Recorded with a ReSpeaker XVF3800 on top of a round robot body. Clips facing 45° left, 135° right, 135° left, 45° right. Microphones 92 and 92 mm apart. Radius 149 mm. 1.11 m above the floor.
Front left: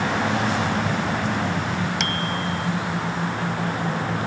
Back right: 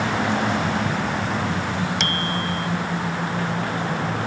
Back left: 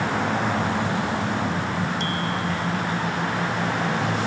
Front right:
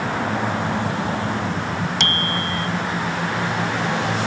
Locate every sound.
2.0 s a bicycle bell: 45° right